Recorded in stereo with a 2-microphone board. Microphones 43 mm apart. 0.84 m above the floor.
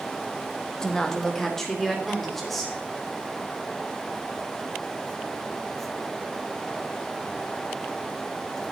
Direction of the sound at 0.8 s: 15° left (ahead or behind).